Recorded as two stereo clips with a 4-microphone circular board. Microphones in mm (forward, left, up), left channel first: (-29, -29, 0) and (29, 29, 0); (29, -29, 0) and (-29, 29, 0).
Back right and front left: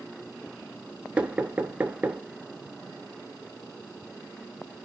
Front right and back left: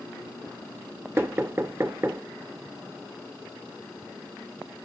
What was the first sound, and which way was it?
Knocking, 110° left.